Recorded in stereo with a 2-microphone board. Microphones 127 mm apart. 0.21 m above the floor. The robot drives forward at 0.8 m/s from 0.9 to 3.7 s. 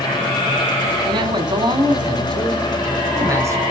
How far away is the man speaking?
About 1.4 m.